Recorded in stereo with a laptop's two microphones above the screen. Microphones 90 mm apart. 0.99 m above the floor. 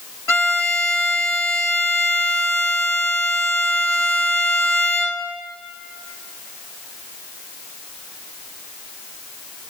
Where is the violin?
30° left (ahead or behind), 0.8 m.